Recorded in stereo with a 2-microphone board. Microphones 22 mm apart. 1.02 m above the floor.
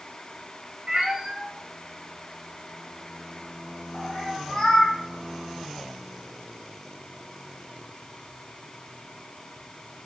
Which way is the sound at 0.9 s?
50° right (ahead or behind).